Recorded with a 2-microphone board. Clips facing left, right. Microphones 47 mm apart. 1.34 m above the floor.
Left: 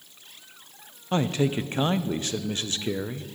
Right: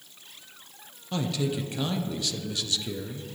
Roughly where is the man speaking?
Left.